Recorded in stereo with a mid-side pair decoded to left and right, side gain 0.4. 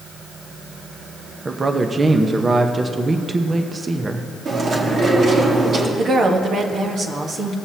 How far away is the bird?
No bird in this recording.